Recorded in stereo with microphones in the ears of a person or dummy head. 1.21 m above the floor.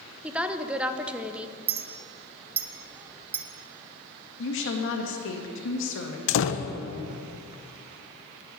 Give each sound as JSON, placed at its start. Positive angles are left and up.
{"t": 0.2, "sound": "a woman speaking", "side_deg": -5, "distance_m": 0.7}
{"t": 1.7, "sound": "a clink", "side_deg": -10, "distance_m": 0.6}
{"t": 4.4, "sound": "a woman speaking", "side_deg": 65, "distance_m": 1.9}
{"t": 6.3, "sound": "a door slam", "side_deg": 65, "distance_m": 0.6}